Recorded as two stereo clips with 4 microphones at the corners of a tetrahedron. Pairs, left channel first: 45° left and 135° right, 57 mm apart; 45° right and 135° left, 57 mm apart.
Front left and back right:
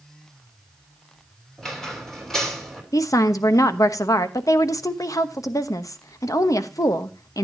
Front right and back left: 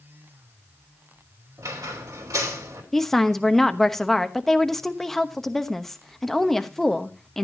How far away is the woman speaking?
About 1.0 m.